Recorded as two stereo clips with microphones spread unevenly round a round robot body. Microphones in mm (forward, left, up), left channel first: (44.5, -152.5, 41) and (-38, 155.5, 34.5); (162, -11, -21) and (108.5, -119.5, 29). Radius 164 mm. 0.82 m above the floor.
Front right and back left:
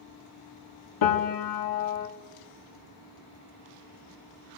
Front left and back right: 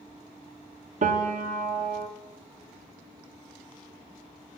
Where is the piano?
95° right, 1.4 m.